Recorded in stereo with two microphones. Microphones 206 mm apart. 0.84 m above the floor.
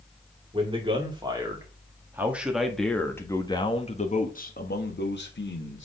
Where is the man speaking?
25° right (ahead or behind), 2.5 m; by 5.9 s 65° left (ahead or behind), 1.8 m.